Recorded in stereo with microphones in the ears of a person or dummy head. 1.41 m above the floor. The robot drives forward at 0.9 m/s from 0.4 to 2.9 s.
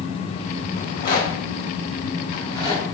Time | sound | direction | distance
0.8 | a rattle | 45° left (ahead or behind) | 1.9 m